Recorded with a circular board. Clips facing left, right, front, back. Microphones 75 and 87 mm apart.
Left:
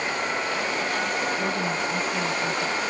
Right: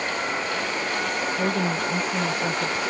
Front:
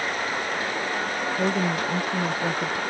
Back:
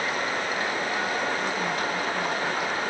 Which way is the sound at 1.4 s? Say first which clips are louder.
Right 2 dB, front 3 dB; 25° right.